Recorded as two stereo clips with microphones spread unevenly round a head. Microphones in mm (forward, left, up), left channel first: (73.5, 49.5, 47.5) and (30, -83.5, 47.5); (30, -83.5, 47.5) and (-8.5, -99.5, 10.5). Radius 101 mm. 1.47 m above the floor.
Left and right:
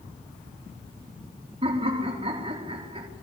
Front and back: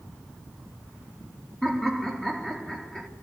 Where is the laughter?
60° right, 4 m.